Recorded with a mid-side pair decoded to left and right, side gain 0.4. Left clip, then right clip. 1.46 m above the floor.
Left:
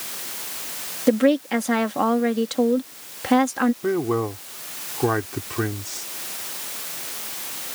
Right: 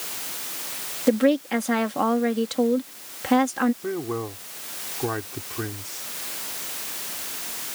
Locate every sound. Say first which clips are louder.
1.1 s a woman speaking: left 2 dB; 10° left
3.8 s a man speaking: left 6 dB; 45° left